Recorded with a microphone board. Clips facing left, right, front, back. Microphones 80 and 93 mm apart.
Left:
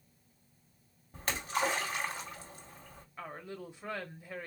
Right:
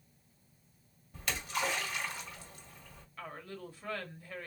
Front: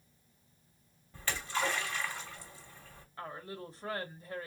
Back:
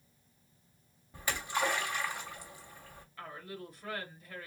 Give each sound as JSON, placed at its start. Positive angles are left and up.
{"t": 1.1, "sound": "a splash", "azimuth_deg": 115, "distance_m": 1.7}
{"t": 3.2, "sound": "a woman speaking", "azimuth_deg": 30, "distance_m": 1.1}